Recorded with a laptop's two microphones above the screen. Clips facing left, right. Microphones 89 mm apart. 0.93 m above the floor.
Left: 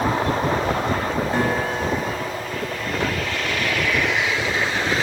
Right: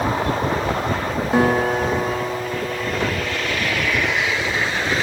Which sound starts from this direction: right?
A guitar, at 1.3 s.